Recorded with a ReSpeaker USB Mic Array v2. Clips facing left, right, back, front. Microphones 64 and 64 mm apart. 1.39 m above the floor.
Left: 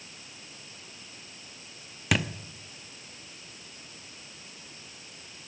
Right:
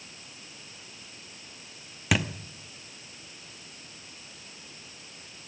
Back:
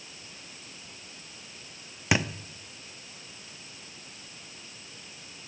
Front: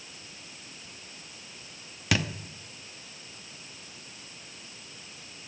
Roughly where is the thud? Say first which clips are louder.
Right 1 dB, back 2 dB; behind.